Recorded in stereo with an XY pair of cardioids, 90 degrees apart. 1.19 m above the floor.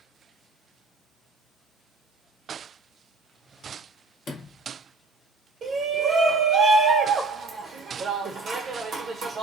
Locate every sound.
4.3 s a sliding door: 60° left, 0.9 m
5.6 s a shout: 60° right, 1.2 m